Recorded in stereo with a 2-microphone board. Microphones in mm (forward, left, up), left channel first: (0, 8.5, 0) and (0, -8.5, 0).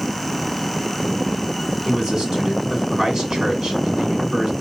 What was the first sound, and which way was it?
A man speaking, 40° right (ahead or behind).